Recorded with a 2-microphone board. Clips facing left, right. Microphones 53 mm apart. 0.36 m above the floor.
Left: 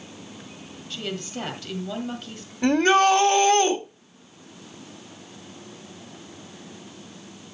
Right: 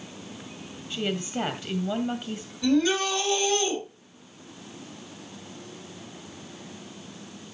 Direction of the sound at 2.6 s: 55° left (ahead or behind).